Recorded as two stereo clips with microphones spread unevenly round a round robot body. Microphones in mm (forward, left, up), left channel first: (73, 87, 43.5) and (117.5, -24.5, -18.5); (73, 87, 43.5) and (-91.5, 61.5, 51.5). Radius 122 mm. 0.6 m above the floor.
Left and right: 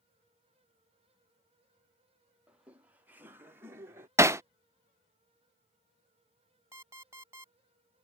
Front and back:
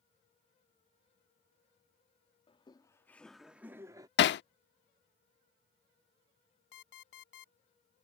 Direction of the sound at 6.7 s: 5° left.